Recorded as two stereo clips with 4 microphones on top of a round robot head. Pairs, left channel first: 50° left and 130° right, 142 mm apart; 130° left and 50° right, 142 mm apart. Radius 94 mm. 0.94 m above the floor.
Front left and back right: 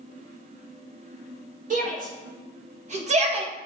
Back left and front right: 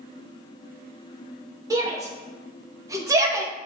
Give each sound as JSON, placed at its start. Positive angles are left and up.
{"t": 1.7, "sound": "a shout", "azimuth_deg": -115, "distance_m": 1.7}